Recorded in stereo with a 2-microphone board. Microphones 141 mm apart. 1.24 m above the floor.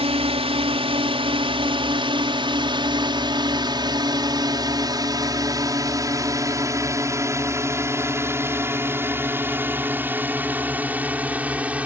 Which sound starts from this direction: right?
A drone, at 0.0 s.